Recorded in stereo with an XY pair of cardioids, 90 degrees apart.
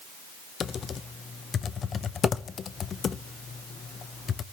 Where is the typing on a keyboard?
55° left, 0.6 m.